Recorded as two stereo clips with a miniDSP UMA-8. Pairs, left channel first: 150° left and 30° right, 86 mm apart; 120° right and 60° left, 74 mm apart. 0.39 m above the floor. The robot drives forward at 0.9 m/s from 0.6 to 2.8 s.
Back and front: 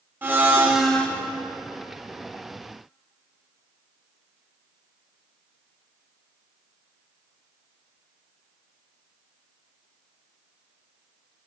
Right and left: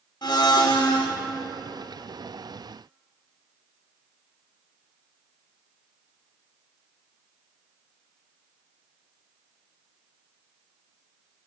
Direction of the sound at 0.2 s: 95° right.